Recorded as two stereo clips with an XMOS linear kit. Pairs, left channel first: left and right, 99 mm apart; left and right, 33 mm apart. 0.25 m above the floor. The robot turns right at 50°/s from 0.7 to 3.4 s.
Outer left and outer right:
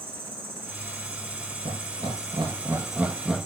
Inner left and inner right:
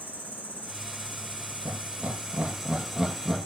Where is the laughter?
70° right (ahead or behind), 3.5 m; by 3.5 s 5° left (ahead or behind), 3.5 m.